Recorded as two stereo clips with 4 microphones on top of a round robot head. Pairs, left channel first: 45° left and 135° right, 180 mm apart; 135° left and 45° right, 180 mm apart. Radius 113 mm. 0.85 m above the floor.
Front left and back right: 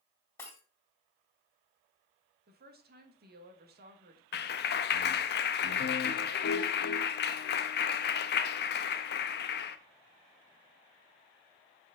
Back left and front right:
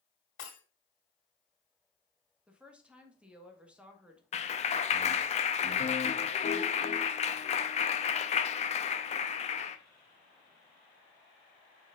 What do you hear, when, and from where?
0.4 s breaking glass: 125° left, 2.5 m
2.5 s a woman speaking: 130° right, 1.5 m
4.3 s a clap: 80° left, 0.6 m